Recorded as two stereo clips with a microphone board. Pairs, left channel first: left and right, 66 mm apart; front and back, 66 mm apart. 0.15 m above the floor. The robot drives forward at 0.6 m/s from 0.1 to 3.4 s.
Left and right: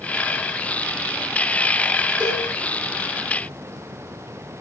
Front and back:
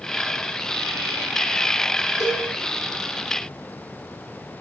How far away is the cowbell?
About 4 m.